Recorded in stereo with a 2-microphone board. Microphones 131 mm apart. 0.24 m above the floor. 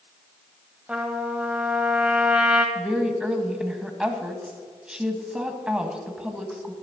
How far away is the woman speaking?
About 1.7 m.